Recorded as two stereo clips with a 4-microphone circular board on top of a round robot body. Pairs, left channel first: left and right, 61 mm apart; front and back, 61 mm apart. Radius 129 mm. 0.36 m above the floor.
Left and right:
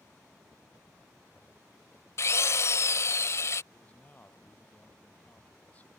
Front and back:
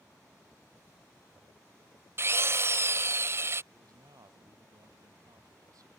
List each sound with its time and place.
2.2 s a drill: 135° left
3.7 s a man speaking: 155° left